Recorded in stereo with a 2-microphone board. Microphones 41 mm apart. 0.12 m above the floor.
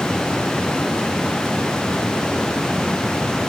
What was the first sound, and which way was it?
Only background noise.